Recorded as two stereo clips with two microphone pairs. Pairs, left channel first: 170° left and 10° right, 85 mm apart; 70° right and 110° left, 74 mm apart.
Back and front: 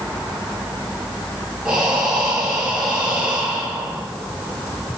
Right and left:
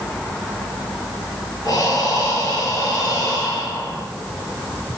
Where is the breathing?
85° right, 1.8 m.